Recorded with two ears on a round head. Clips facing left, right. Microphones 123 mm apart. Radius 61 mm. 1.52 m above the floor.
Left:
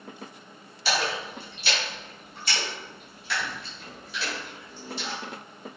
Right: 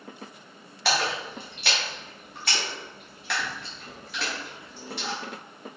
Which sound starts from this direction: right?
A splash, at 0.8 s.